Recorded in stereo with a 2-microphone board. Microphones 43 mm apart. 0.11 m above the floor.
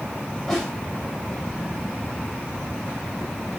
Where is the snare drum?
10° left (ahead or behind), 7 m.